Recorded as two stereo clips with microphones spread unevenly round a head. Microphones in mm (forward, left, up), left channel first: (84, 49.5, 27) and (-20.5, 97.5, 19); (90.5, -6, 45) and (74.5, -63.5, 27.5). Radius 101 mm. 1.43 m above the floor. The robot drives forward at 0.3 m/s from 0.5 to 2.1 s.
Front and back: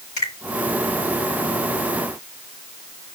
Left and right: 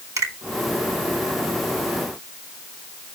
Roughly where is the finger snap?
Right.